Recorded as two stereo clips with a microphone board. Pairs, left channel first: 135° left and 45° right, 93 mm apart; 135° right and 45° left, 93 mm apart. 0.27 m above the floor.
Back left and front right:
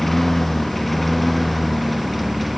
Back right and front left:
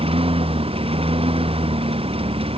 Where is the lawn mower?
50° left; by 2.6 s 45° left.